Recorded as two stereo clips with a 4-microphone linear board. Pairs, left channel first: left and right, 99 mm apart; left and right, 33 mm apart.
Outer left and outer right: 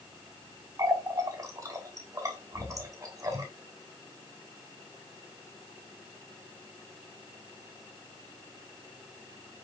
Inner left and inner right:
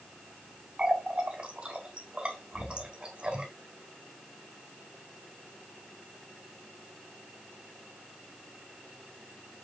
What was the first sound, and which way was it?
A running tap, 35° right (ahead or behind).